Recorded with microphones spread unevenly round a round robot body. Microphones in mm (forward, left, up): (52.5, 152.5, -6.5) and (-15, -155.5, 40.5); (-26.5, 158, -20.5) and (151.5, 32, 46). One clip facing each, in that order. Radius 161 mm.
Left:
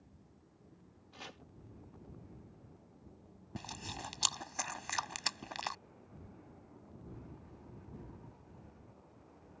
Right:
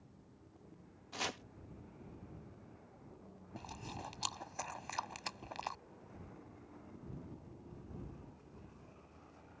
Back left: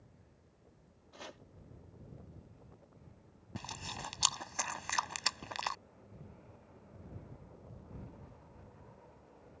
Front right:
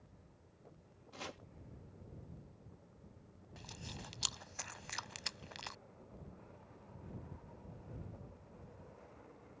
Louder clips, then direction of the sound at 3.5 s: Left 2 dB, back left 5 dB; 135° left.